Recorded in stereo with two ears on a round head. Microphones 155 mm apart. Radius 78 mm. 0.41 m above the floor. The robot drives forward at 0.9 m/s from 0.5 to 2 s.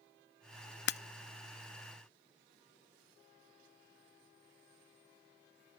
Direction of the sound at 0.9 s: 65° left (ahead or behind).